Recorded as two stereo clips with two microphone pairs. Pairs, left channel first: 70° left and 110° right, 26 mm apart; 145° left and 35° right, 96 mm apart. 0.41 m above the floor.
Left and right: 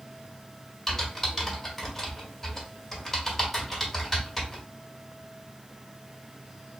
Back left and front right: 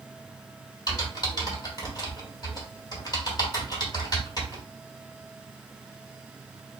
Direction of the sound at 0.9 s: 145° left.